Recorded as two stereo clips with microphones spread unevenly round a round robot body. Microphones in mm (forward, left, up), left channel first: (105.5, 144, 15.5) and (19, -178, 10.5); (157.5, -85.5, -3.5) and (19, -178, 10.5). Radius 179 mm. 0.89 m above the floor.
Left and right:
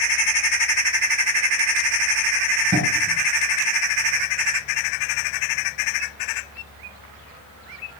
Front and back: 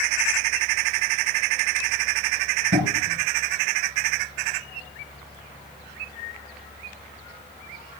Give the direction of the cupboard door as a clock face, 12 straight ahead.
6 o'clock.